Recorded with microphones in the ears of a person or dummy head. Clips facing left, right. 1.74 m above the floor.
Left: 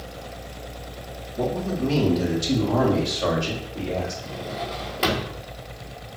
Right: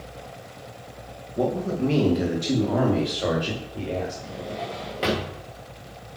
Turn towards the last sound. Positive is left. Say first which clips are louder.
# left 1 dB
turn(degrees=0)  # may be behind; listen again after turning